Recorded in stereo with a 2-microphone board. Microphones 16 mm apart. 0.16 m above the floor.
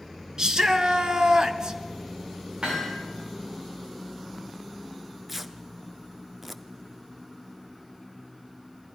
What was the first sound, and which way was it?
A shout, 45° right (ahead or behind).